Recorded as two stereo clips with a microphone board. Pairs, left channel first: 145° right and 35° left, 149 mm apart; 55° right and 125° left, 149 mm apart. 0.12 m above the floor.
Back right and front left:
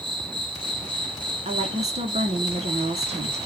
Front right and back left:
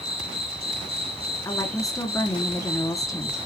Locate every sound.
0.0 s an insect: 85° left, 1.3 m
1.4 s a woman speaking: 10° left, 2 m